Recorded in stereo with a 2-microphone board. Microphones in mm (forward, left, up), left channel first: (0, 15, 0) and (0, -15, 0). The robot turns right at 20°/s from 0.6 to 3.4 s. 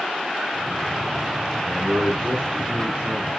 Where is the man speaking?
155° right, 6.5 m; by 3.3 s 120° right, 6.5 m.